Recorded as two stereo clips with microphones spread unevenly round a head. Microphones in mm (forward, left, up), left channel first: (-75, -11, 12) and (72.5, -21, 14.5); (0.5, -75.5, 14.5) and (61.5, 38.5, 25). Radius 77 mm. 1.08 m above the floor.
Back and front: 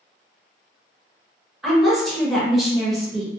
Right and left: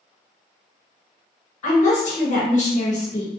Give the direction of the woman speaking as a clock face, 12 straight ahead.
3 o'clock.